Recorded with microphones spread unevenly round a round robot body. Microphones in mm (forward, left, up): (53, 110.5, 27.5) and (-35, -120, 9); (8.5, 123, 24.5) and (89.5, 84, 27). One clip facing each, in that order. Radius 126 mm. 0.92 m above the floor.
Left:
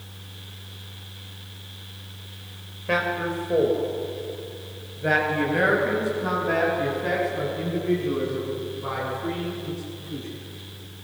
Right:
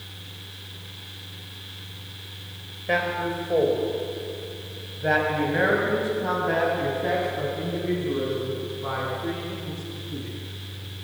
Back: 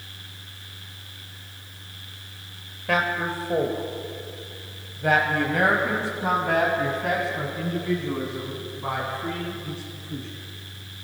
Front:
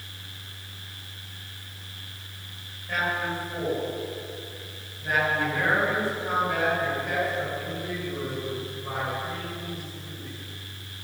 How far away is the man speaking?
About 3.5 m.